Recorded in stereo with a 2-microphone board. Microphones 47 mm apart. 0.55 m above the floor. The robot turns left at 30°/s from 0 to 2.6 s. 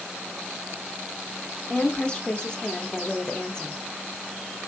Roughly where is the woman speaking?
Left.